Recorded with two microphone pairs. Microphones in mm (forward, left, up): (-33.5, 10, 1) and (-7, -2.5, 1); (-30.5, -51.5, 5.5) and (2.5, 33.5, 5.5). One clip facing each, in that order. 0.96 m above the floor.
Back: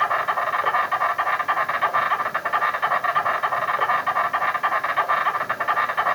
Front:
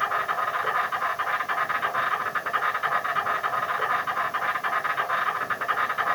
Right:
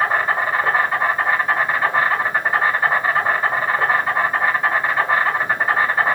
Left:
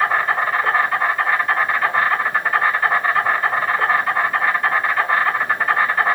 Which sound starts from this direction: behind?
An insect, at 0.0 s.